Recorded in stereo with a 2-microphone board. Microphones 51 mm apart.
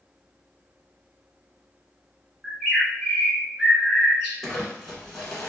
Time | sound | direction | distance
2.4 | a bird | 10° right (ahead or behind) | 1.3 m
4.4 | crumpling | centre (ahead or behind) | 1.0 m